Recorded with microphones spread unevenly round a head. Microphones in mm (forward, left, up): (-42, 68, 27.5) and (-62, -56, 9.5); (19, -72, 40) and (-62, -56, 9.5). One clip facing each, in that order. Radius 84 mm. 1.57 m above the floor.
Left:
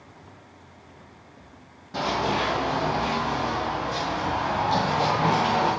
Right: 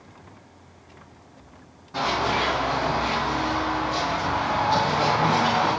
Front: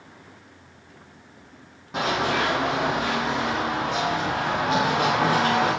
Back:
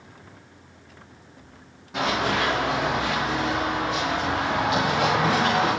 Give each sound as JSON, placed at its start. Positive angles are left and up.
{"t": 1.9, "sound": "running footsteps", "azimuth_deg": 35, "distance_m": 3.5}